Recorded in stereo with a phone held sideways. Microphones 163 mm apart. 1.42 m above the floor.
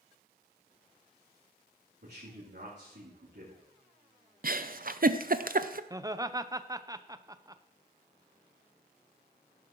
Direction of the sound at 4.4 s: 60° right (ahead or behind).